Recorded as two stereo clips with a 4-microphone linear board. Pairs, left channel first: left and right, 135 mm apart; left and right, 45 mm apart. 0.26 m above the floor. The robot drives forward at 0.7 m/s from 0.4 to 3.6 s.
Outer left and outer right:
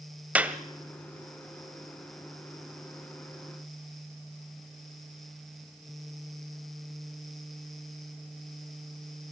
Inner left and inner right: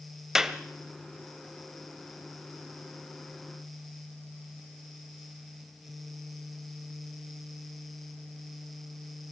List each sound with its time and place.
0.3 s a clap: 10° right (ahead or behind), 1.2 m